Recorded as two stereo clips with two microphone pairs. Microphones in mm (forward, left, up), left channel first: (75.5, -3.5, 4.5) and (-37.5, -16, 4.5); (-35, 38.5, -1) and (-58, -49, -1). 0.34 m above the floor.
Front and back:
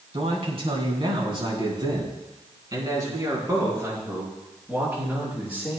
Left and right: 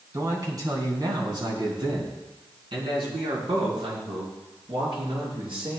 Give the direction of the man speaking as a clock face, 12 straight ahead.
5 o'clock.